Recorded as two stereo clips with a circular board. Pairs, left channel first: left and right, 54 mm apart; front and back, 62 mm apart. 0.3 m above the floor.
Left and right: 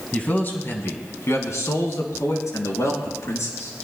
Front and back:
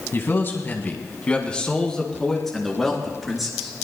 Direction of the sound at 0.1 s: 35° left.